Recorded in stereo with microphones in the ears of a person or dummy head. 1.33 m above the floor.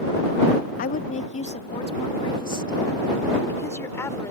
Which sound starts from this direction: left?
A woman speaking, at 0.8 s.